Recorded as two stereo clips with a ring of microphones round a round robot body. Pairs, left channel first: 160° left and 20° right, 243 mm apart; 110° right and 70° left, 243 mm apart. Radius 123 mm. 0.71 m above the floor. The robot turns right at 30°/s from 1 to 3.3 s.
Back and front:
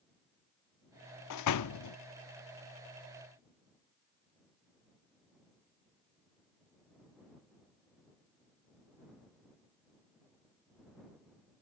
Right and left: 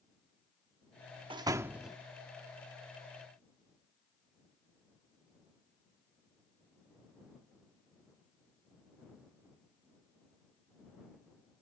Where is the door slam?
140° left; by 2.0 s 160° left.